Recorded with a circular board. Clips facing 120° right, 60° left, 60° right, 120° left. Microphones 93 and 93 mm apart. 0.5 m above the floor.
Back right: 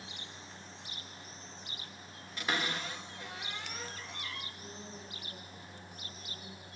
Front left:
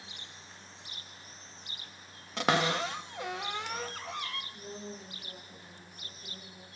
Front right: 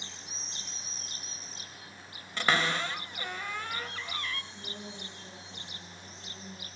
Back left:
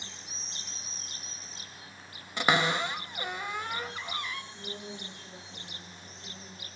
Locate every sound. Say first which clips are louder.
2.4 s a cupboard door: front left 8 dB, back left 2 dB; 45° left, 0.6 m
4.5 s a woman speaking: front left 4 dB, back left 2 dB; 10° left, 4.5 m